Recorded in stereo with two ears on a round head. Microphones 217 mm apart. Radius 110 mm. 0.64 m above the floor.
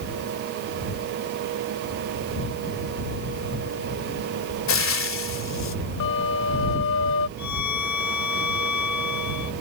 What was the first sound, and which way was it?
Frying, 60° left (ahead or behind).